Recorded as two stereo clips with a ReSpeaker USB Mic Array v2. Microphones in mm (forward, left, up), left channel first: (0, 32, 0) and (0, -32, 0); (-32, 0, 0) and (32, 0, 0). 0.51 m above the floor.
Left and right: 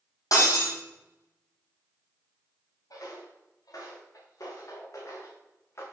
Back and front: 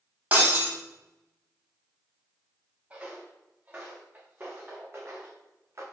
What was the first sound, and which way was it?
Breaking glass, 65° left.